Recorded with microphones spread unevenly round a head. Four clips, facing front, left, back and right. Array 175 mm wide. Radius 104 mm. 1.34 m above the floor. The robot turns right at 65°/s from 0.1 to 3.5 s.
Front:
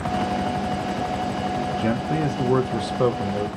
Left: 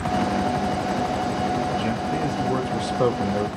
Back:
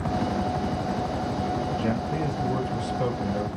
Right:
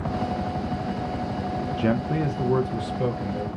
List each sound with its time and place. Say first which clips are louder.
1.8 s a man speaking: even, front 4 dB; 35° right, 0.5 m; by 3.5 s 75° left, 0.5 m